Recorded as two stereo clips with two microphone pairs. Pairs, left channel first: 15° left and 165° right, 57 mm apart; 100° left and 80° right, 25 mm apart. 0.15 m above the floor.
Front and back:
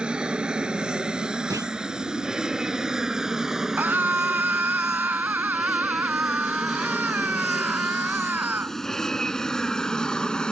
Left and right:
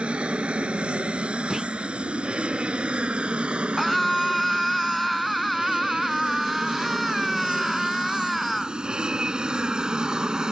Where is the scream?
170° right.